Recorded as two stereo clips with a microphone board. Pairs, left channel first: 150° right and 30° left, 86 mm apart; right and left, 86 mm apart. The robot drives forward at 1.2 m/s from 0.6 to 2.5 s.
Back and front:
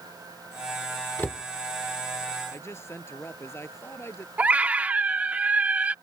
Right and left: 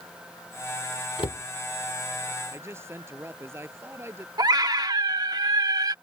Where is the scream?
100° left.